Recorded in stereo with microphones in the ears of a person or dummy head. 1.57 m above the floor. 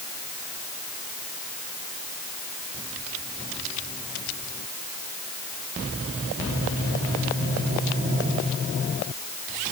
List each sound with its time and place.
Only background noise.